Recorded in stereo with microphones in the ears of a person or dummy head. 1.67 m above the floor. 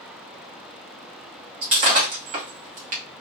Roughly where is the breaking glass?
Right.